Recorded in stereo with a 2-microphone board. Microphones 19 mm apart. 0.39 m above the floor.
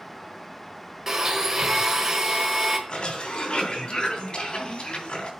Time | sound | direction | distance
1.1 | a blender | 30° right (ahead or behind) | 1.5 m
2.9 | a cough | 70° left (ahead or behind) | 3 m